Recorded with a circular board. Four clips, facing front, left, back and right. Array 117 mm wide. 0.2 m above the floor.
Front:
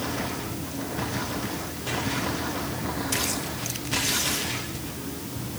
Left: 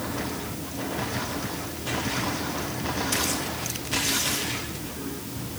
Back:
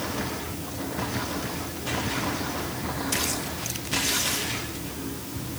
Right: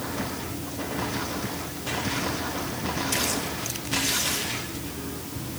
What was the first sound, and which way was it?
Only background noise.